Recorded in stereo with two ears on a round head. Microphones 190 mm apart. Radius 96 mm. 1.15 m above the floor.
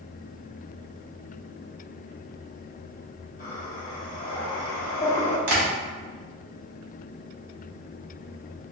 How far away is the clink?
I don't hear a clink.